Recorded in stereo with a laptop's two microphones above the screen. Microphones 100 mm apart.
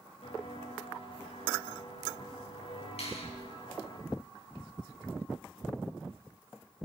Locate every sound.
0.2 s footsteps: 80° left, 10 m; by 4.0 s 55° left (ahead or behind), 11.5 m
3.0 s a finger snap: 80° left, 5.5 m